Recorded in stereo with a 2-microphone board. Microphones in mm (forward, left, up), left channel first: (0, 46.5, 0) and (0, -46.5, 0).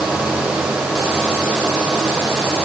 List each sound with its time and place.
Only background noise.